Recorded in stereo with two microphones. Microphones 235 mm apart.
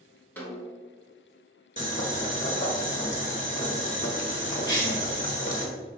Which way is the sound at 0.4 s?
10° left (ahead or behind).